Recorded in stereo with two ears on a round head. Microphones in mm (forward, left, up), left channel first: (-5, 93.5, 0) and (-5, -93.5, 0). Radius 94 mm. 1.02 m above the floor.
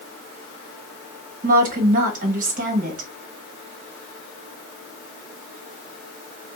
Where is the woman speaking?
40° right (ahead or behind), 1.0 m.